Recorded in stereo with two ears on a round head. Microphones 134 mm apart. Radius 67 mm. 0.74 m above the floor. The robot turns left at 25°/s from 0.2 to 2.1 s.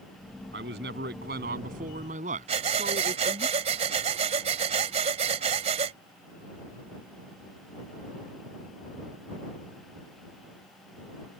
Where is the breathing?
45° right (ahead or behind).